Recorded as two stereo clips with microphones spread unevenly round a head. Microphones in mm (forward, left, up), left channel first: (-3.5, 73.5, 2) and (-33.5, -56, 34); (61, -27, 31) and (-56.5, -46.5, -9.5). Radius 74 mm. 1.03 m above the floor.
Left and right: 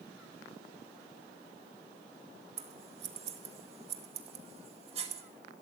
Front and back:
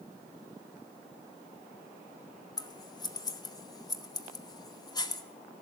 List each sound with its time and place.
2.6 s scissors: 50° right, 1.0 m